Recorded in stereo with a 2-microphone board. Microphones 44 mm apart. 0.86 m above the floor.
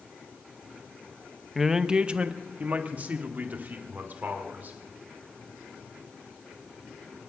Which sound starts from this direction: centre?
A man speaking, at 1.6 s.